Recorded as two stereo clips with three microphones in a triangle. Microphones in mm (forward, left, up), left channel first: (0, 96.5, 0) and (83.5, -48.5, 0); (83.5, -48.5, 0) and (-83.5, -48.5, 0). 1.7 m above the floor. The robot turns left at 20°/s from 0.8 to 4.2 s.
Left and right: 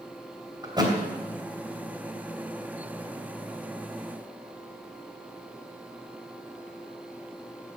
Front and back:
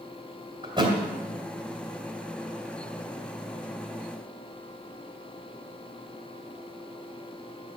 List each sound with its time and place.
0.6 s a thud: 120° right, 2.5 m; by 0.9 s 125° right, 2.5 m